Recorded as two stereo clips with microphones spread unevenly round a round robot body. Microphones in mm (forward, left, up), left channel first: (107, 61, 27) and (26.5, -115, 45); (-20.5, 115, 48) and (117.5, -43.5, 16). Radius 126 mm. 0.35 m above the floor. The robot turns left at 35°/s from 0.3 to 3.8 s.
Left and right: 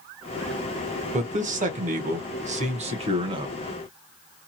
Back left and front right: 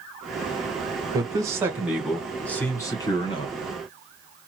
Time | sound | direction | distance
1.1 | a man speaking | 90° right | 0.9 m